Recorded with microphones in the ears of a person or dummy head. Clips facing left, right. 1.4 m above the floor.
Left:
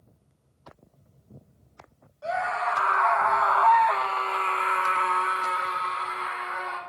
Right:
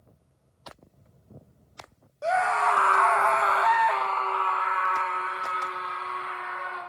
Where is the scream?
60° right (ahead or behind), 1.3 m; by 6.8 s 70° left (ahead or behind), 2.0 m.